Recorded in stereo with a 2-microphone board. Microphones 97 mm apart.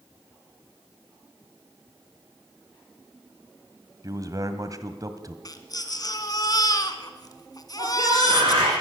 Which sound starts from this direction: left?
A baby crying, at 5.5 s.